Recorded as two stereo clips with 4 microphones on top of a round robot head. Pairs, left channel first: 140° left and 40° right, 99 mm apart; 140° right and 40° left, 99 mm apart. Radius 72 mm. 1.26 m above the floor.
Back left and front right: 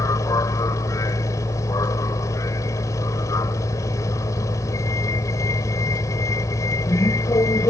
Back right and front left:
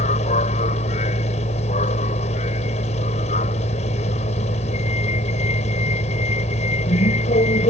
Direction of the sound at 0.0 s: 160° right.